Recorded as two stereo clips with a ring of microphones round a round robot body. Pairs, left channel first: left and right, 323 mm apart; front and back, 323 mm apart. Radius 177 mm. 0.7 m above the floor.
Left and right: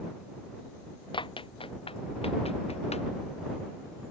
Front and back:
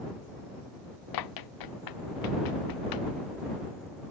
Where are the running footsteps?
15° left; by 3.1 s 20° left.